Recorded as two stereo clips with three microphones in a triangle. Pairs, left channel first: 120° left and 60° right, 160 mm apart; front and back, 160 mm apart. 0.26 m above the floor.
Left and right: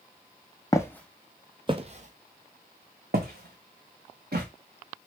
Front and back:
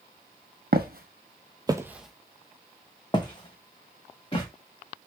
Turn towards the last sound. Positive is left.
turn(degrees=-55)